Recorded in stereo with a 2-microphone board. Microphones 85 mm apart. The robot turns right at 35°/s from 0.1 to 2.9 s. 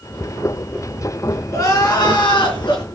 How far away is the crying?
About 4 m.